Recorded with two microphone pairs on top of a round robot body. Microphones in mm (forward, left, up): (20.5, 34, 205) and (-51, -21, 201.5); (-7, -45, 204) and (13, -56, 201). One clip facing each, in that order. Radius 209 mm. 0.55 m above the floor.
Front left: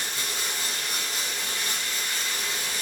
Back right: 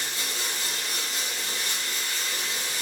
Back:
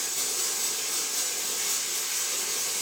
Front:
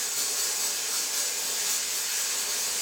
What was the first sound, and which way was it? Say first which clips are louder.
Running water: front left 1 dB, even; 5° right.